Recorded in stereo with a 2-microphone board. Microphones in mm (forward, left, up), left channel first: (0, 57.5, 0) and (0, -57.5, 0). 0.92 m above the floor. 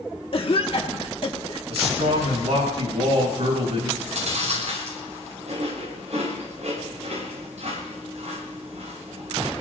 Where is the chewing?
80° right, 7.5 m.